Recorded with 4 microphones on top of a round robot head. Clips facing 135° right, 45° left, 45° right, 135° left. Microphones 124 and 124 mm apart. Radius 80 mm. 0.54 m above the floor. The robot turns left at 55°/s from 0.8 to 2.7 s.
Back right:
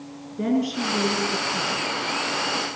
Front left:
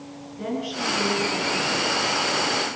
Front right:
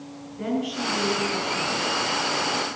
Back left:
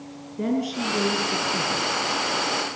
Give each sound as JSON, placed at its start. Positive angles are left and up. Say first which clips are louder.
{"t": 0.4, "sound": "a woman speaking", "louder": "back right 6 dB, back left 2 dB", "azimuth_deg": -175, "distance_m": 7.0}